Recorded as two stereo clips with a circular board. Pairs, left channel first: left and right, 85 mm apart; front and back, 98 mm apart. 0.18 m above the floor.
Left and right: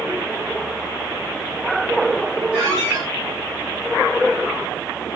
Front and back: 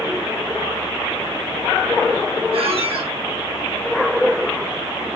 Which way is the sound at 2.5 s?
165° left.